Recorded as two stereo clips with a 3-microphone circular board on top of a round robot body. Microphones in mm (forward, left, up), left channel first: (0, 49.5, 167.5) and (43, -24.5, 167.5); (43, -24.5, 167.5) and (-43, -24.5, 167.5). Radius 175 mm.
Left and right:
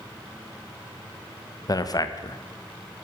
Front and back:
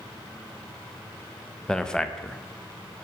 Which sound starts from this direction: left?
A man speaking, at 1.7 s.